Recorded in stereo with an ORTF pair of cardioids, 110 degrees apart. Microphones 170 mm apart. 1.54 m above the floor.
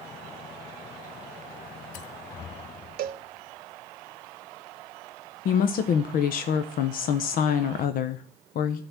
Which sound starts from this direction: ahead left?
A woman speaking, at 5.5 s.